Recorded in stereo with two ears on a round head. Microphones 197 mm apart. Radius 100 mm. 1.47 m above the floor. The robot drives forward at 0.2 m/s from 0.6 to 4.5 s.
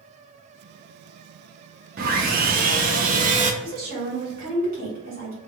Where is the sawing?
40° right (ahead or behind), 0.6 m; by 3.5 s 35° right (ahead or behind), 0.7 m.